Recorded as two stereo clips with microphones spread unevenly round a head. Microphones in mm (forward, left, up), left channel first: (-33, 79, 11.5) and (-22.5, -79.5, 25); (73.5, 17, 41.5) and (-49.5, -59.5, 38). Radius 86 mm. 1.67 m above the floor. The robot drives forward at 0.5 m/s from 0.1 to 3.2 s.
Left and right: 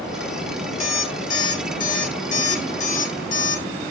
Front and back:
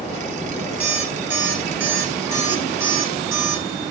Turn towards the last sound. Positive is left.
turn(degrees=140)